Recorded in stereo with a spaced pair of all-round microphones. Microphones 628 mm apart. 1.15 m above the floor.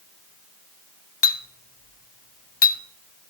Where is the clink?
45° left (ahead or behind), 0.7 m.